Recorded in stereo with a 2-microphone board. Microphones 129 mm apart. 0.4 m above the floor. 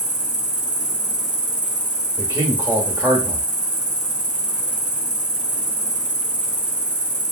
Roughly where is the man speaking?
Centre.